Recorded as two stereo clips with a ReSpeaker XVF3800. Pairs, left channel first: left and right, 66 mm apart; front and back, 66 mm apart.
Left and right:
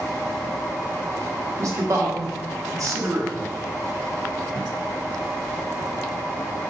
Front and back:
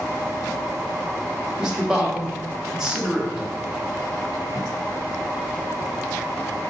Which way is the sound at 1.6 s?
105° right.